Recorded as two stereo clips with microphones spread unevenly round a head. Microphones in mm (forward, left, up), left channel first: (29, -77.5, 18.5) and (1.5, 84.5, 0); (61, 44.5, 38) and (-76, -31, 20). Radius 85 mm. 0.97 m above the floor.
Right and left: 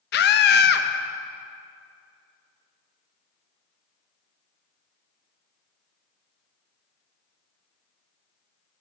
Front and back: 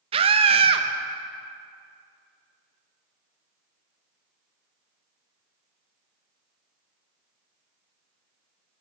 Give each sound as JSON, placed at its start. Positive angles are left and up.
{"t": 0.1, "sound": "a scream", "azimuth_deg": -105, "distance_m": 0.9}